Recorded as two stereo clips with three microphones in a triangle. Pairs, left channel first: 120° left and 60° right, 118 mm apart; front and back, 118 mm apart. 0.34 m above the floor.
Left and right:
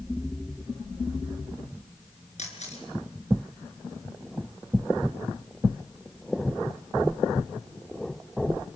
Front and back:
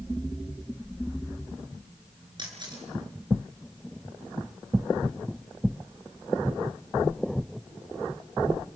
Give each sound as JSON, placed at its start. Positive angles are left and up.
{"t": 2.4, "sound": "a camera shutter", "azimuth_deg": 130, "distance_m": 4.5}